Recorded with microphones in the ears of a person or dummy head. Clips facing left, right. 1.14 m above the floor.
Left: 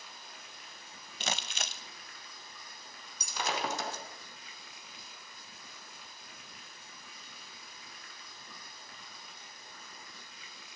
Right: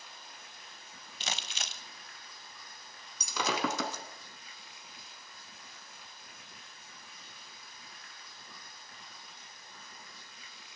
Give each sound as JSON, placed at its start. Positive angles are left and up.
{"t": 0.0, "sound": "running water", "side_deg": 65, "distance_m": 5.5}
{"t": 1.2, "sound": "crumpling", "side_deg": 45, "distance_m": 1.5}
{"t": 3.2, "sound": "breaking glass", "side_deg": -75, "distance_m": 3.0}